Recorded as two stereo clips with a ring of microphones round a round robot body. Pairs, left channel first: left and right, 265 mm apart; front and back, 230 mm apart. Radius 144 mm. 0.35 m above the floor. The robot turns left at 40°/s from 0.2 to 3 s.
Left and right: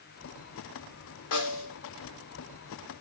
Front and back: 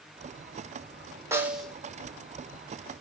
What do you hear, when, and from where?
1.3 s a snare drum: 100° left, 1.5 m; by 1.8 s 85° left, 1.5 m